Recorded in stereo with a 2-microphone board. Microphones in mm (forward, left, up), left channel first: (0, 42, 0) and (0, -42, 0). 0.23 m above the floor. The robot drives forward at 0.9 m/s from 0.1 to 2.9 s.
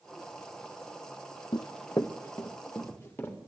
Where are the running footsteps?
60° left (ahead or behind), 0.5 m; by 3.4 s 25° left (ahead or behind), 3 m.